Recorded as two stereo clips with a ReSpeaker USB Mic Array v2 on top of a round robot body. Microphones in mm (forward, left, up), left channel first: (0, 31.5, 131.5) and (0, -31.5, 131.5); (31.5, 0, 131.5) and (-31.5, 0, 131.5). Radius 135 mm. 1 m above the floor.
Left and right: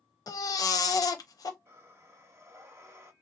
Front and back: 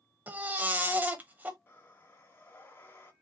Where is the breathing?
50° right, 1.2 m.